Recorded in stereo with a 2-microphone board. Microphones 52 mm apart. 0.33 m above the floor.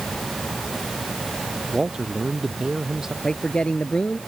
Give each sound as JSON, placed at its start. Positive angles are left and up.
{"t": 1.7, "sound": "a man speaking", "side_deg": -15}
{"t": 3.2, "sound": "a man speaking", "side_deg": 25}